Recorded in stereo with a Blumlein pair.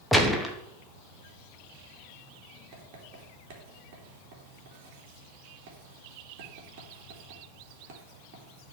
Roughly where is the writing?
Ahead right.